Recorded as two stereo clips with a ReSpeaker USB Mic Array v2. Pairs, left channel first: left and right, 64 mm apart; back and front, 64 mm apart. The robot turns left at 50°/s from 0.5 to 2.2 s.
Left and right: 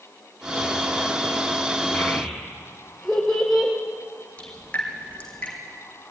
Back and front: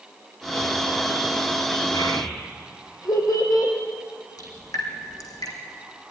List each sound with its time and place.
1.9 s a child speaking: 170° right, 4 m; by 3.7 s 175° left, 4 m
4.4 s dripping: 160° left, 4 m